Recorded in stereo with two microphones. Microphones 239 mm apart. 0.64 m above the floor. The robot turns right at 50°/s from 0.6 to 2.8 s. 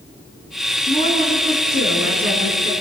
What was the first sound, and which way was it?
A woman speaking, 25° left.